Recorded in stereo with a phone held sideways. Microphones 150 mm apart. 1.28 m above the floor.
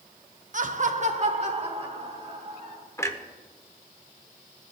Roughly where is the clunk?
Centre.